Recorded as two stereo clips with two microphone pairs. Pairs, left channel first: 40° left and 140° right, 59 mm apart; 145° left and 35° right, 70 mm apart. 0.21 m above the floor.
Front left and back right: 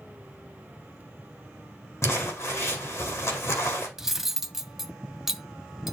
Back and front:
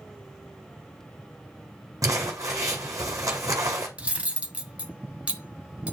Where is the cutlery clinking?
70° right, 0.7 m.